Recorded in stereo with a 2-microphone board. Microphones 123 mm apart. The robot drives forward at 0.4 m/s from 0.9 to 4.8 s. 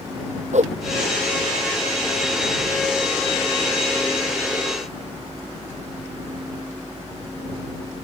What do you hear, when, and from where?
0.5 s a whoosh: 70° right (ahead or behind)